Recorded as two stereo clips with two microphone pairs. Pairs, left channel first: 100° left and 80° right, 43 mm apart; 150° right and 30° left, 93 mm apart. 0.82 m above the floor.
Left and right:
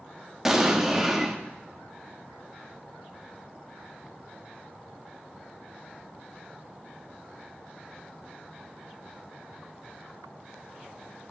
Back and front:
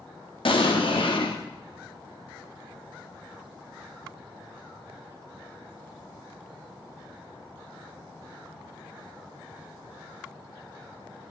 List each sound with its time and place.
0.5 s an explosion: 160° right, 1.0 m